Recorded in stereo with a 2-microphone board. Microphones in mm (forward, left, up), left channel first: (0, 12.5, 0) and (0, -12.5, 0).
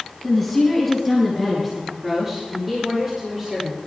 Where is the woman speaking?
Centre (ahead or behind), 4.5 m; by 3.9 s 30° right (ahead or behind), 7 m.